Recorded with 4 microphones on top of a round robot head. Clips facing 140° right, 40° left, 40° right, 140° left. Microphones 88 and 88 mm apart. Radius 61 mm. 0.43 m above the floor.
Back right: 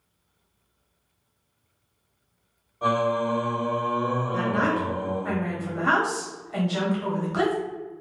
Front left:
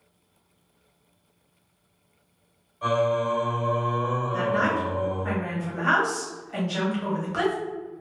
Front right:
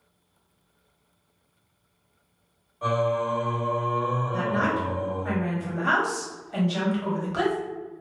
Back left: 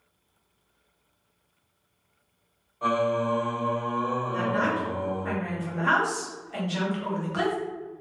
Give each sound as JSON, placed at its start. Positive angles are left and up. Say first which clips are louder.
{"t": 2.8, "sound": "singing", "louder": "even, even", "azimuth_deg": -155, "distance_m": 1.7}
{"t": 4.3, "sound": "a woman speaking", "louder": "front left 1 dB, even", "azimuth_deg": -75, "distance_m": 0.9}